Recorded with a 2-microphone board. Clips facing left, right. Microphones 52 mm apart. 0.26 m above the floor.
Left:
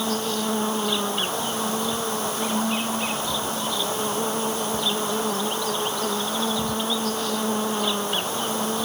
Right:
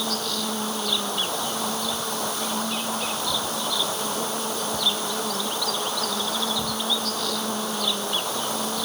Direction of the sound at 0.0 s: 30° left (ahead or behind).